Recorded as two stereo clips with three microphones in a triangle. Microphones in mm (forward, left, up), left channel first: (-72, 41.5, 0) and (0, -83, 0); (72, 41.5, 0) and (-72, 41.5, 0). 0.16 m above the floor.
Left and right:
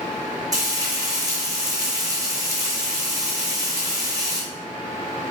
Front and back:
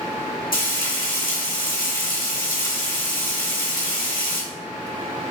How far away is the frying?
About 1.8 m.